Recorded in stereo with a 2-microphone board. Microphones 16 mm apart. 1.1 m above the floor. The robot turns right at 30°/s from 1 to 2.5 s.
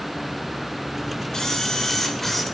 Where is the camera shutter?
140° left, 4.5 m; by 2.4 s 170° left, 4.5 m.